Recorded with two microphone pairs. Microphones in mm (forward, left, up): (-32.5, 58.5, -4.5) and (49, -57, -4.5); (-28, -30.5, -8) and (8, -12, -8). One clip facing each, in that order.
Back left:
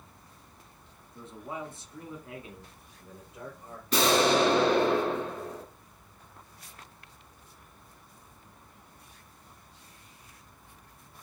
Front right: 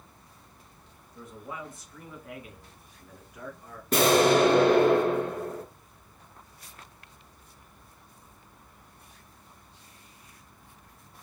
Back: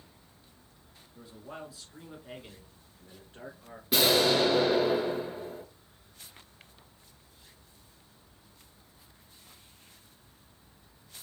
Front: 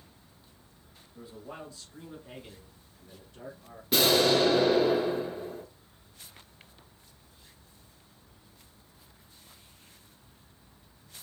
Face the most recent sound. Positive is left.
turn(degrees=-70)